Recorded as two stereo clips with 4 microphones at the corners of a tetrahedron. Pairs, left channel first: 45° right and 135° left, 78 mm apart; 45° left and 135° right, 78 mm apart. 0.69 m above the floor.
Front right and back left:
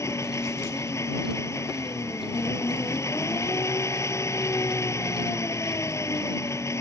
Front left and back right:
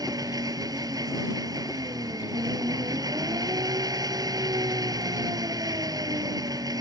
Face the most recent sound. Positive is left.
turn(degrees=-100)